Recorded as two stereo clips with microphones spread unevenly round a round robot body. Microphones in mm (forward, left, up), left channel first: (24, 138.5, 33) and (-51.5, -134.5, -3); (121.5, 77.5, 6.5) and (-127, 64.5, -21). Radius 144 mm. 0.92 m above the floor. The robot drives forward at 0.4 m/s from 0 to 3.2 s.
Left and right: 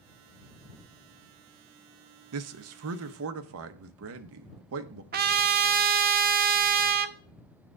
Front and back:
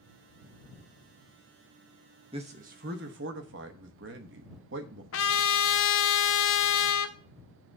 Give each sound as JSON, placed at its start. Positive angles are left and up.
{"t": 2.3, "sound": "a man speaking", "azimuth_deg": -110, "distance_m": 0.7}
{"t": 5.1, "sound": "a trumpet", "azimuth_deg": -45, "distance_m": 0.6}